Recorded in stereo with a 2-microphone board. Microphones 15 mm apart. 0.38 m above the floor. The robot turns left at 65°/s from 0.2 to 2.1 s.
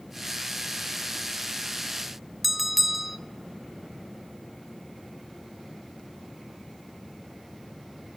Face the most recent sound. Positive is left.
turn(degrees=5)  # may be behind; listen again after turning